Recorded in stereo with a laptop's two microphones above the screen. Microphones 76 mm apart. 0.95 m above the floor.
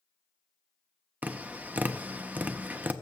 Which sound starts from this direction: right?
Tapping, at 1.2 s.